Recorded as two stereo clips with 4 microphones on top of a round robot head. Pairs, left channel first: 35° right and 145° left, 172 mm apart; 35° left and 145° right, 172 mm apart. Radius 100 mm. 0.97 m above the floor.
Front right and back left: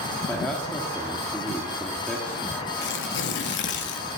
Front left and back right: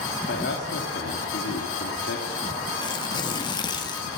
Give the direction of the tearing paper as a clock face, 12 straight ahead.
1 o'clock.